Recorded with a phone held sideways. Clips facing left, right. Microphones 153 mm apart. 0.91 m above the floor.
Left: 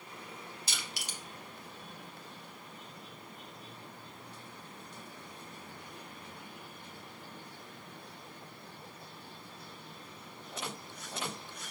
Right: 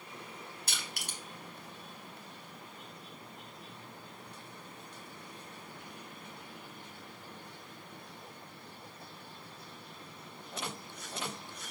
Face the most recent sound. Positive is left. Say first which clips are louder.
# even
turn(degrees=-55)  # may be behind; listen again after turning